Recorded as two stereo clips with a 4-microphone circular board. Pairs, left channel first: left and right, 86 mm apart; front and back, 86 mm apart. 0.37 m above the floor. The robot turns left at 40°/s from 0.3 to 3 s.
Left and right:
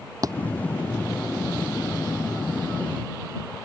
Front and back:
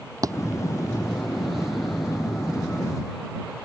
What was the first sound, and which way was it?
A thud, 135° right.